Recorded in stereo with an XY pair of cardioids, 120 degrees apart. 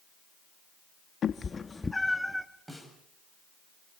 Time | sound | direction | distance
1.2 | a cat meowing | 50° left | 0.9 m
2.7 | a snare drum | 10° right | 7 m